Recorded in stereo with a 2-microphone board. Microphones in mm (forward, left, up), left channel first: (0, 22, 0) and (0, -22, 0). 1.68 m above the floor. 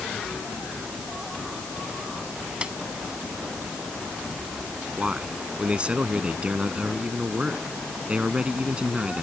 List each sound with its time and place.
2.6 s a snare drum: 25° right (ahead or behind)
5.0 s a man speaking: 25° right (ahead or behind)